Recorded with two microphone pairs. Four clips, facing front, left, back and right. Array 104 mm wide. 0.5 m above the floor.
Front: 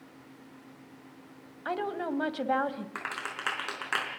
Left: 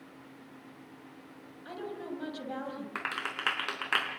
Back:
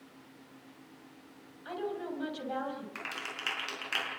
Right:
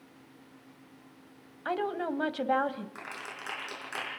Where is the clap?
55° left, 4.5 m.